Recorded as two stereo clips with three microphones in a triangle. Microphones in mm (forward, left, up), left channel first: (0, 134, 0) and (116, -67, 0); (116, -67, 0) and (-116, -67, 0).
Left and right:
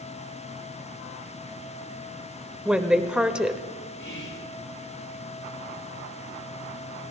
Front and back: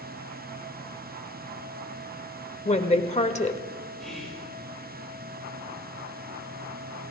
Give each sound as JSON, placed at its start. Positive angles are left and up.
{"t": 2.6, "sound": "a woman speaking", "azimuth_deg": 25, "distance_m": 1.2}
{"t": 4.0, "sound": "whispering", "azimuth_deg": 90, "distance_m": 9.0}